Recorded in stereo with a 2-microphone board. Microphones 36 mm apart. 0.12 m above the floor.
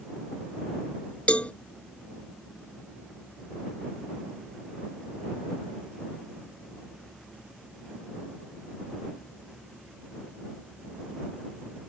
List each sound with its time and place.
1.3 s a cowbell: 40° left (ahead or behind)